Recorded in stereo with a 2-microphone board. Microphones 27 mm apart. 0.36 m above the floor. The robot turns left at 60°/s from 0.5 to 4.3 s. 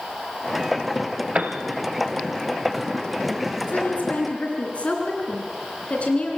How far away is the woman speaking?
About 3.5 m.